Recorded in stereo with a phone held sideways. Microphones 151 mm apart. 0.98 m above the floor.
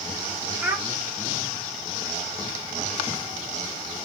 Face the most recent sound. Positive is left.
turn(degrees=-10)  # may be behind; listen again after turning